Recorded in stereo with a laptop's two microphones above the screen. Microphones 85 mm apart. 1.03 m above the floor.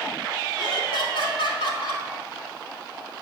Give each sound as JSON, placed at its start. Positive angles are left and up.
{"t": 0.6, "sound": "laughter", "side_deg": 70, "distance_m": 2.0}